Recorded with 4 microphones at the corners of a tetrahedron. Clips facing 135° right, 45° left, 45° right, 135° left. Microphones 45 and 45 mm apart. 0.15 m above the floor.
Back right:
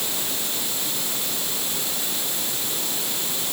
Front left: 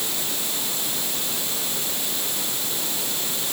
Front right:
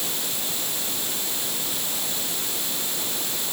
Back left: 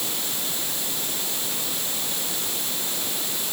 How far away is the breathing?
No breathing in this recording.